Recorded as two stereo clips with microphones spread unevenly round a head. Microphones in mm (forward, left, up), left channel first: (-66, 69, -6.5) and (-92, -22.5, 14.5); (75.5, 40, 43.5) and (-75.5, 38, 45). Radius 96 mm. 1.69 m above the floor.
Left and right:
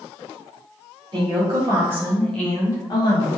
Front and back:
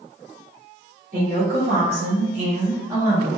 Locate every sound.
1.1 s a woman speaking: 135° right, 1.0 m; by 3.3 s 105° left, 0.8 m